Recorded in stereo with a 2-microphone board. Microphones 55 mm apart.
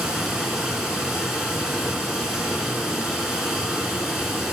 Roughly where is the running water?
Centre.